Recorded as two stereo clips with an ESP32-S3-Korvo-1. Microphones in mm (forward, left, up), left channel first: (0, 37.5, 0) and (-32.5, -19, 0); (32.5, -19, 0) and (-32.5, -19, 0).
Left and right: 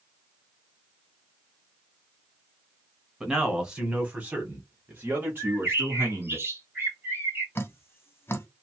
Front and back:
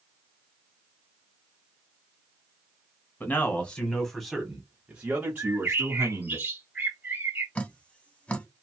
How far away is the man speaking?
About 1.3 m.